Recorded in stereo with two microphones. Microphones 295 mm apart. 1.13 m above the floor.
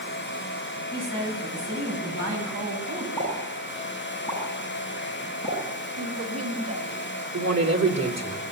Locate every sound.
0.9 s a woman speaking: 50° right (ahead or behind), 8 m; by 3.1 s 60° right (ahead or behind), 8 m
3.2 s a pop: 10° left (ahead or behind), 9.5 m
6.0 s a woman speaking: 60° right (ahead or behind), 3 m
7.3 s a man speaking: 65° right (ahead or behind), 3 m